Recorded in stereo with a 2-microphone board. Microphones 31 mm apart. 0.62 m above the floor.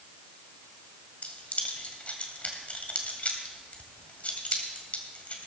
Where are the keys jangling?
50° left (ahead or behind), 2.0 m.